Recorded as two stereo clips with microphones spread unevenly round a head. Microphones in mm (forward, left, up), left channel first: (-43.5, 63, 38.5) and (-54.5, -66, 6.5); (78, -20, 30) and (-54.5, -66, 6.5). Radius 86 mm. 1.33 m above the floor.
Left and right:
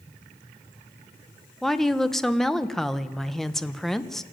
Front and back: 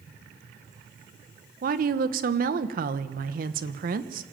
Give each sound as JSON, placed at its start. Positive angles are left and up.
{"t": 1.6, "sound": "a woman speaking", "azimuth_deg": 175, "distance_m": 1.2}